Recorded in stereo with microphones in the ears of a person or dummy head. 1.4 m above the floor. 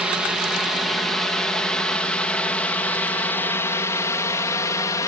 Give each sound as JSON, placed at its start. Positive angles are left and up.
{"t": 0.0, "sound": "a drone", "side_deg": -5}